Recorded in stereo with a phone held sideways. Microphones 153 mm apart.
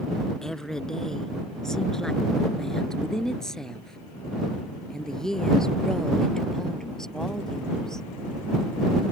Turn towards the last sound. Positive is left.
turn(degrees=5)  # may be behind; listen again after turning